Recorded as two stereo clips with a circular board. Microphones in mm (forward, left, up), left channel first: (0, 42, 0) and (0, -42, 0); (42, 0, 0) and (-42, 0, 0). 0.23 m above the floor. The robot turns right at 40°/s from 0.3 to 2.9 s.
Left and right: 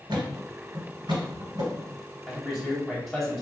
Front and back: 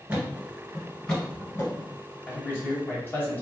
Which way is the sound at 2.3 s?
10° right.